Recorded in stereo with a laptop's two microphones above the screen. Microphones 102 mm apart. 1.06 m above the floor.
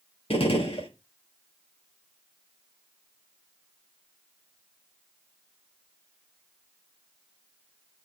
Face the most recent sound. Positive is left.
turn(degrees=70)  # may be behind; listen again after turning